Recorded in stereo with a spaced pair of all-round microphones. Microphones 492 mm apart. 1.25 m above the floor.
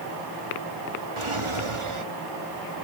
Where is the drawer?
75° right (ahead or behind).